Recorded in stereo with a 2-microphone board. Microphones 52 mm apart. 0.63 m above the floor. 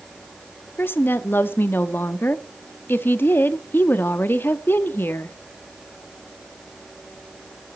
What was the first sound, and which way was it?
A woman speaking, 45° left (ahead or behind).